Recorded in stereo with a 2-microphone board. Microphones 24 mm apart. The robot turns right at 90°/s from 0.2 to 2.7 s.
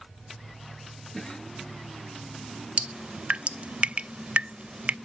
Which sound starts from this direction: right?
Dripping, at 2.8 s.